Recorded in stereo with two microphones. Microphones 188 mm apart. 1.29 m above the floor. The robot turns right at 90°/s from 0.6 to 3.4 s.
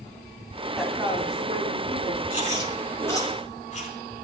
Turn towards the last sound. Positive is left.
turn(degrees=40)  # may be behind; listen again after turning